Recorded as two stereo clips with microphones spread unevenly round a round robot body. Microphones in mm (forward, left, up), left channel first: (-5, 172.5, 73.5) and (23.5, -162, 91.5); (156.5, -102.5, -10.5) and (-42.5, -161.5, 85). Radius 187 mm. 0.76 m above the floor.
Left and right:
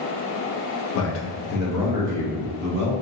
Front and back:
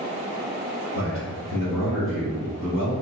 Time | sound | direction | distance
0.9 | a man speaking | 135° left | 0.6 m